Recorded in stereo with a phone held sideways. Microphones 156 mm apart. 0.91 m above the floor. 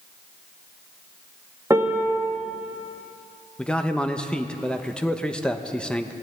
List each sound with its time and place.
1.7 s a piano: 15° right (ahead or behind), 1.3 m
3.6 s a man speaking: 5° left (ahead or behind), 0.8 m